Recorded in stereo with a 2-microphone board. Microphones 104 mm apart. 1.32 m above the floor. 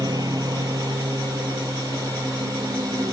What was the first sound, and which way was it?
A lawn mower, 40° right (ahead or behind).